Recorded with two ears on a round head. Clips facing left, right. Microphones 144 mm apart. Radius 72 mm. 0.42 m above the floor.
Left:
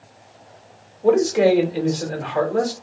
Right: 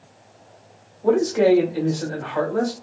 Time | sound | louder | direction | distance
1.0 | a man speaking | left 1 dB | 25° left (ahead or behind) | 1.1 m